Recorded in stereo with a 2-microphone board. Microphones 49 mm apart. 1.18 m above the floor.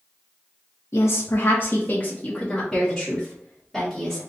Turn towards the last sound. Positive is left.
turn(degrees=0)  # may be behind; listen again after turning